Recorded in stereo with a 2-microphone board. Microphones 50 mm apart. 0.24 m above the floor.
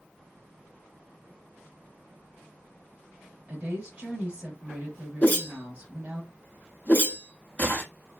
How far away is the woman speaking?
About 1.1 m.